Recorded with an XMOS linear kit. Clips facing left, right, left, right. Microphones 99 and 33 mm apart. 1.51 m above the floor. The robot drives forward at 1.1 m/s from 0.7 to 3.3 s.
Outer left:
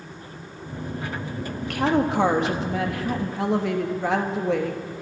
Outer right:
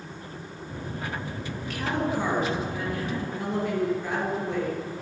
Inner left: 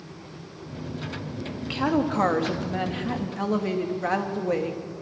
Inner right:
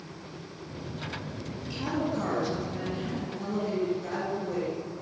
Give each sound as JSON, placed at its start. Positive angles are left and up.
{"t": 1.6, "sound": "a woman speaking", "side_deg": 60, "distance_m": 3.0}